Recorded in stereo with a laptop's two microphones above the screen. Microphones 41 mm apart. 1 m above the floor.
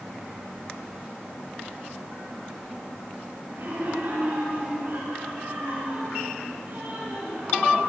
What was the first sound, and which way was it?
Laughter, 60° right (ahead or behind).